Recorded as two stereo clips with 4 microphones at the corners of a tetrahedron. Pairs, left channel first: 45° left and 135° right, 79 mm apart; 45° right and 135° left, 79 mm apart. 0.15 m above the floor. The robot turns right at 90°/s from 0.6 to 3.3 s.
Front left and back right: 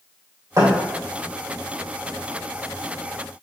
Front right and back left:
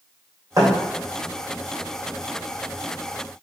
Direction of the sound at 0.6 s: Straight behind.